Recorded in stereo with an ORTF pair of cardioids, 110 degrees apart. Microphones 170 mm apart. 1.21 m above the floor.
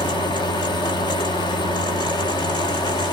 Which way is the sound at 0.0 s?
25° left.